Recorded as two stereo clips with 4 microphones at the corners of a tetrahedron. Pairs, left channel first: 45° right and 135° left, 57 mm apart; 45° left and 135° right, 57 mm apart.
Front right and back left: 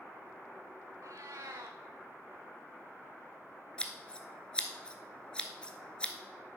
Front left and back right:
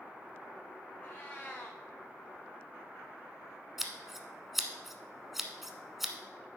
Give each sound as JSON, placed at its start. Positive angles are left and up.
{"t": 1.0, "sound": "a cat meowing", "azimuth_deg": 110, "distance_m": 1.3}
{"t": 3.8, "sound": "scissors", "azimuth_deg": -60, "distance_m": 0.8}